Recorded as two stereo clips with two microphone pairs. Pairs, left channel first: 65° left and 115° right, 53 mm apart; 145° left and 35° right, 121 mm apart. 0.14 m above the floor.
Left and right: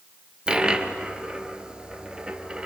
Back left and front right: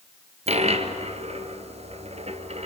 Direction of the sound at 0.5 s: 45° right.